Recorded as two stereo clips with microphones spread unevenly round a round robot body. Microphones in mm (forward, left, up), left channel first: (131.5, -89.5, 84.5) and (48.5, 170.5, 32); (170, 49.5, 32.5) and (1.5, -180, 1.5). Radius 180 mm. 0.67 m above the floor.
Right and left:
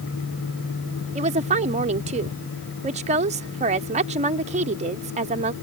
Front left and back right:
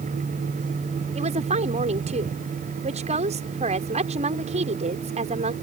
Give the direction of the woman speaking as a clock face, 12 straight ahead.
6 o'clock.